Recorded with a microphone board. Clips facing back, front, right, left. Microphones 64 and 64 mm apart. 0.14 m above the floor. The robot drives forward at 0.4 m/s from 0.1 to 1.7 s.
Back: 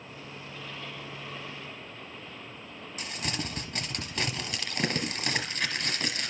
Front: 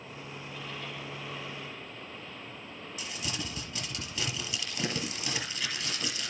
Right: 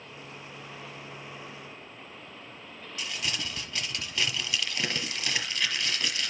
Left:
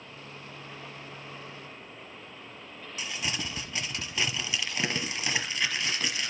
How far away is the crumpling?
About 1.3 m.